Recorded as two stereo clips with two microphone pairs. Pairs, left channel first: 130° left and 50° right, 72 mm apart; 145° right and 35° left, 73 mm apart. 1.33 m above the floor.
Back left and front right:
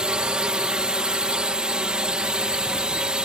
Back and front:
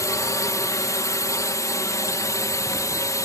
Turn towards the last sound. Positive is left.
turn(degrees=-125)